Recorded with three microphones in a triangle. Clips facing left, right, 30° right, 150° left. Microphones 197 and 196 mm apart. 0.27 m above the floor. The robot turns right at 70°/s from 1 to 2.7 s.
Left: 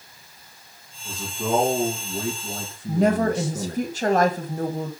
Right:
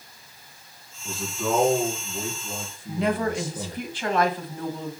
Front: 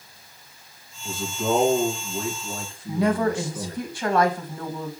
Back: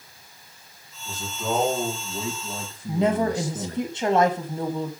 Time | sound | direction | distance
1.1 | a man speaking | 10° right | 3 m
2.9 | a woman speaking | 95° left | 1.3 m